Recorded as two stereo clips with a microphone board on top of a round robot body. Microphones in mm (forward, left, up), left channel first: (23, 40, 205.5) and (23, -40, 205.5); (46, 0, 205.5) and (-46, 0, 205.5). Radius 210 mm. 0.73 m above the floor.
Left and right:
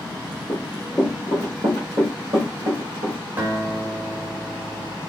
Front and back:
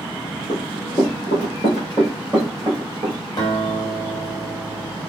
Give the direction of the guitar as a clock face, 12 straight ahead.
1 o'clock.